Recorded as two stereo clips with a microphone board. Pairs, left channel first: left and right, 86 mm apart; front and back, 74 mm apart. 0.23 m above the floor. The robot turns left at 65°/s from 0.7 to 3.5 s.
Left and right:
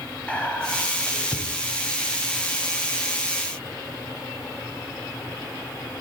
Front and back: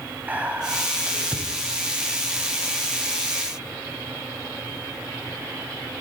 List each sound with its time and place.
0.3 s whispering: 145° left, 1.1 m; by 1.4 s 100° left, 1.1 m